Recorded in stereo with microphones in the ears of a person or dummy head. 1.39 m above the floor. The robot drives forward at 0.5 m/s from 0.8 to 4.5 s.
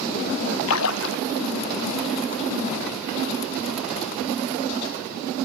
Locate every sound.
0.7 s a splash: 85° left, 0.5 m; by 1.2 s 70° left (ahead or behind), 0.6 m